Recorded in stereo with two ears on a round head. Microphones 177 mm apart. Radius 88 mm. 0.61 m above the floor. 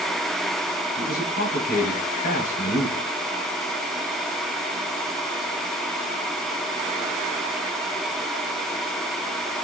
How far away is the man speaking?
About 4 m.